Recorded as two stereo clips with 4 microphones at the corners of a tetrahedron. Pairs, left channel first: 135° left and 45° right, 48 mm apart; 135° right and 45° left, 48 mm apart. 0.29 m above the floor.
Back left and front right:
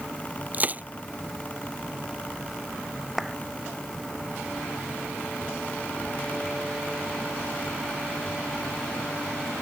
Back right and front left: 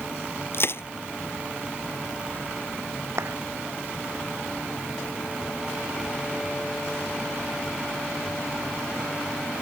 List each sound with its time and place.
0.5 s crushing: 100° right
3.2 s a clap: 40° left